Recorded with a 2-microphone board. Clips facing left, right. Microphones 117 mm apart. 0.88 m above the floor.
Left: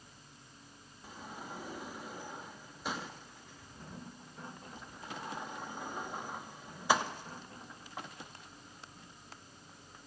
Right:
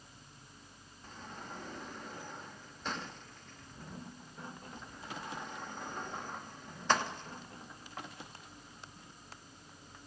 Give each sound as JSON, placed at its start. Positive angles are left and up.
{"t": 1.0, "sound": "a sliding door", "side_deg": 10, "distance_m": 0.5}